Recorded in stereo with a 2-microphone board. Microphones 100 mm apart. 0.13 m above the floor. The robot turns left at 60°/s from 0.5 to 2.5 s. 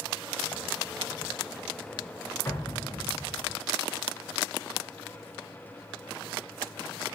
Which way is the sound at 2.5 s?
25° left (ahead or behind).